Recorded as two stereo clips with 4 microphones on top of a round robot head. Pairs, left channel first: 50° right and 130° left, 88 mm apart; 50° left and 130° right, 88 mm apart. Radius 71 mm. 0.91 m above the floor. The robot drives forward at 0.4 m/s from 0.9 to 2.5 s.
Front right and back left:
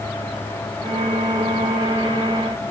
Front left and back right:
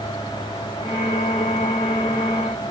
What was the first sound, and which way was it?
Only background noise.